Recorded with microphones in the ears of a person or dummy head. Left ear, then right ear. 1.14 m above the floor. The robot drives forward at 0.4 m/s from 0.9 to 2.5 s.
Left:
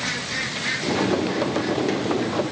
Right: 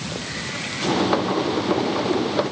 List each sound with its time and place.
Only background noise.